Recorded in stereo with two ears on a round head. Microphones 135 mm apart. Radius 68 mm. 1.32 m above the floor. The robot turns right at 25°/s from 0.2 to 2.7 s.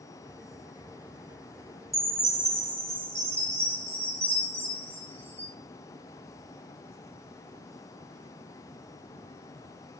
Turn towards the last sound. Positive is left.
turn(degrees=-20)  # may be behind; listen again after turning